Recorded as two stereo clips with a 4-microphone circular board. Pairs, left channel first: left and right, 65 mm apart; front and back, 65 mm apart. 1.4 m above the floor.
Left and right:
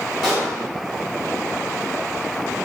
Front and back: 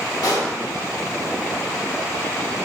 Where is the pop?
5° right, 1.1 m.